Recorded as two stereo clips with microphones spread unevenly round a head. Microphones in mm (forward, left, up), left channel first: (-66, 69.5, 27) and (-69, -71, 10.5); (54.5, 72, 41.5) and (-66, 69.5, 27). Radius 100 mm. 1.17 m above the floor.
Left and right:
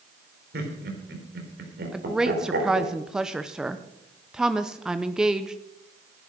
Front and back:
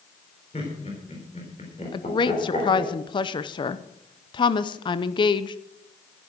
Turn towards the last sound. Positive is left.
turn(degrees=-20)